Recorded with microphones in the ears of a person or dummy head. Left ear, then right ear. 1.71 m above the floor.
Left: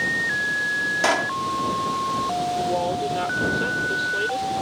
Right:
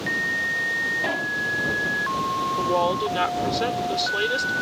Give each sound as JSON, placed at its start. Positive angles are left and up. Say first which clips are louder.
{"t": 1.0, "sound": "a pop", "louder": "left 4 dB", "side_deg": 60}
{"t": 2.6, "sound": "a woman speaking", "louder": "right 2 dB", "side_deg": -50}